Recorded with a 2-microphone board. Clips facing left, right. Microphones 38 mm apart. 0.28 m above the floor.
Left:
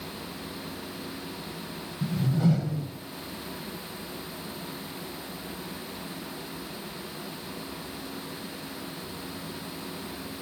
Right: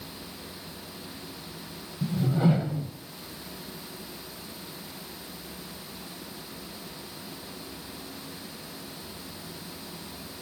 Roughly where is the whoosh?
Right.